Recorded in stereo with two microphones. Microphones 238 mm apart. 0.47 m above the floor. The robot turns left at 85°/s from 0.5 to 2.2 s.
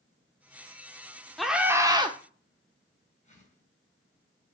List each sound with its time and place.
1.4 s a scream: centre (ahead or behind), 1.4 m; by 2.2 s 20° right (ahead or behind), 1.4 m
3.2 s a whoosh: 30° left (ahead or behind), 5 m